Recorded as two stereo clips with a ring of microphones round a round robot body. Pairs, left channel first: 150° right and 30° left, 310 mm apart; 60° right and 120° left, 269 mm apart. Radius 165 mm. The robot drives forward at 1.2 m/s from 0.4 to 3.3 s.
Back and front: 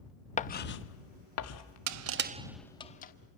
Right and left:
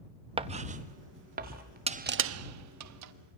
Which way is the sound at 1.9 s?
50° left.